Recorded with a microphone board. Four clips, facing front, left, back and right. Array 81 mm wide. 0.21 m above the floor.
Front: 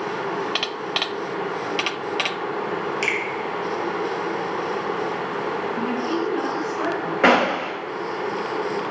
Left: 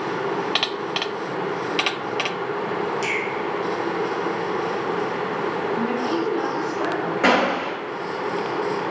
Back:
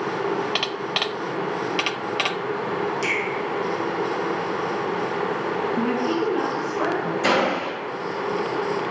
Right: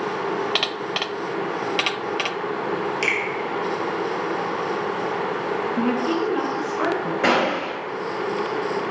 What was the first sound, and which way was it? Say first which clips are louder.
A finger snap: right 1 dB, even; 40° right.